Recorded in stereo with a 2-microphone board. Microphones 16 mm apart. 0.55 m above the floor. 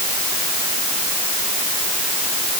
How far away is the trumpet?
No trumpet in this recording.